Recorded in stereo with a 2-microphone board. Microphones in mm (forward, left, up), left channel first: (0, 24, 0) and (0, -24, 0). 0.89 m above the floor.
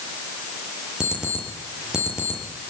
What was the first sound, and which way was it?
An alarm clock, 15° right (ahead or behind).